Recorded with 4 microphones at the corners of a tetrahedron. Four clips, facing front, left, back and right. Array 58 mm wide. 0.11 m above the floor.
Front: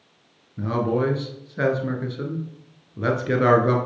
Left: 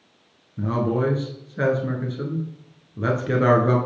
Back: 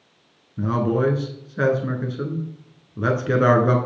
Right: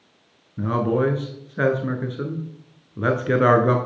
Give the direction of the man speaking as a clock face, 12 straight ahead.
4 o'clock.